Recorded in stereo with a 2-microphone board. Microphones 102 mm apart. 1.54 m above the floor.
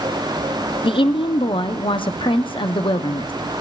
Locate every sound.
0.8 s a woman speaking: 55° left (ahead or behind), 0.7 m